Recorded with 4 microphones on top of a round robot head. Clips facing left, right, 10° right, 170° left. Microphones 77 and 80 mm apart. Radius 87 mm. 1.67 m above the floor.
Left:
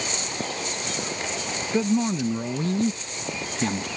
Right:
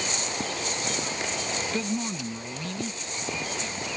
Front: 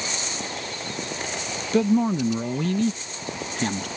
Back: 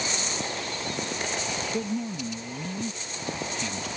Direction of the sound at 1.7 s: 10° left.